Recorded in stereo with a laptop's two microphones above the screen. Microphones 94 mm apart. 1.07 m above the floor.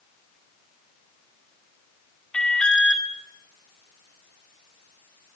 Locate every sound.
2.3 s an alarm: 10° left (ahead or behind), 2.5 m